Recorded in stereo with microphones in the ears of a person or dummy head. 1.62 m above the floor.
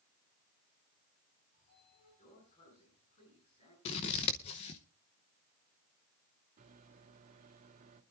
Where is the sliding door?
35° left (ahead or behind), 9.5 m.